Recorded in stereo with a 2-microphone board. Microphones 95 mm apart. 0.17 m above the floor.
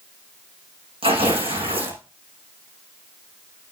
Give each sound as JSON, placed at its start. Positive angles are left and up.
{"t": 1.0, "sound": "tearing paper", "side_deg": -80, "distance_m": 5.5}